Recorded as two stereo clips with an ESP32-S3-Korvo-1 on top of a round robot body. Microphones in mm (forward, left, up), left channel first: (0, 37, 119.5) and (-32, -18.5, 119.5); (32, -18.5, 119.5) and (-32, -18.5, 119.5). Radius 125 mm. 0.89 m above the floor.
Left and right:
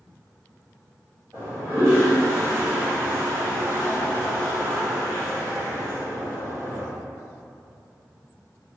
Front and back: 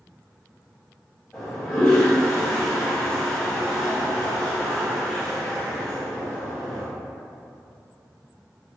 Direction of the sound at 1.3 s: 70° right.